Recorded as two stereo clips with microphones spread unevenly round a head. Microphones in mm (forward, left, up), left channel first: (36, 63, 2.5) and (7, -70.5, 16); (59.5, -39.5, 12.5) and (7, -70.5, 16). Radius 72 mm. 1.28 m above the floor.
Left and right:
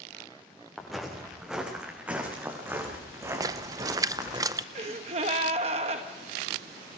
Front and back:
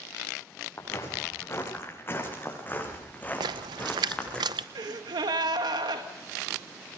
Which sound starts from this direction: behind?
A splash, at 3.4 s.